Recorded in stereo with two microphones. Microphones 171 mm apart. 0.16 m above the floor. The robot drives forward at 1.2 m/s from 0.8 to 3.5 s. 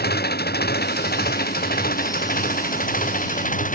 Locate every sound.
0.0 s an engine running: 70° left (ahead or behind); by 3.8 s 50° left (ahead or behind)